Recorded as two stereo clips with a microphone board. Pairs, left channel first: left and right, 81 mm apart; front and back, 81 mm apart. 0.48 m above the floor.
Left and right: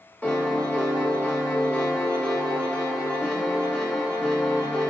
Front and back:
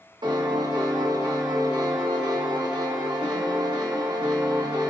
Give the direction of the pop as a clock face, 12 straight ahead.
I don't hear a pop.